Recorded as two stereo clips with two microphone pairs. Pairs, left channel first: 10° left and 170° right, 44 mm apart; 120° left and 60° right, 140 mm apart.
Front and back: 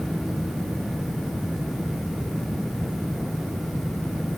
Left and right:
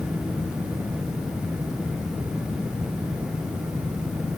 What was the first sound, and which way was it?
Only background noise.